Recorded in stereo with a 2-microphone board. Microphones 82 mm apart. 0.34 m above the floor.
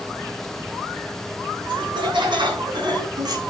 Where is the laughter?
75° right (ahead or behind), 3.5 m; by 3.4 s 60° right (ahead or behind), 2.5 m.